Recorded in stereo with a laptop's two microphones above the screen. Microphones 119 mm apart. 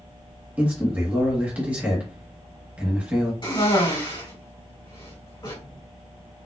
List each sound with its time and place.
0.6 s a man speaking: 10° right (ahead or behind), 1.1 m
3.4 s a cough: 45° left (ahead or behind), 2.5 m